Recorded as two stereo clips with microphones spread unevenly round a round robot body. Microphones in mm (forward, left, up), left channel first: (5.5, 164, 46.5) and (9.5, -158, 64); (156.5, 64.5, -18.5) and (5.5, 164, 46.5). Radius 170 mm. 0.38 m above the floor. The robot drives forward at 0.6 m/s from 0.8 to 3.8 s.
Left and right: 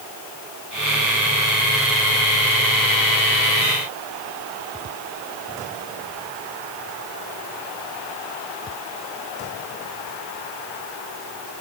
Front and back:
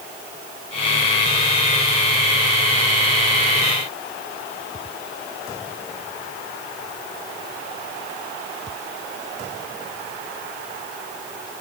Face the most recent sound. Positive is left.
No sound to turn to.